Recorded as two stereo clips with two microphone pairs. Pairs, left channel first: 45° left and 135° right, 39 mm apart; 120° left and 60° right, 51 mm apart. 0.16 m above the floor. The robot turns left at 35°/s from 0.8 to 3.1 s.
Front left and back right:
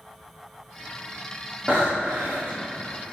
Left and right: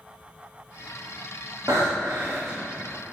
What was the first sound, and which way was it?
Breathing, 70° right.